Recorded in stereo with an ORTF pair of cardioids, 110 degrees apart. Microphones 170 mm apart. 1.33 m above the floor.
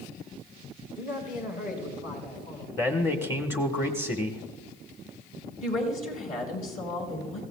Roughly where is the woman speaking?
Ahead left.